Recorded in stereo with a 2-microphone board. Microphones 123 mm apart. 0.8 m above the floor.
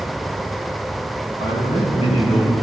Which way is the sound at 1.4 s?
75° left (ahead or behind).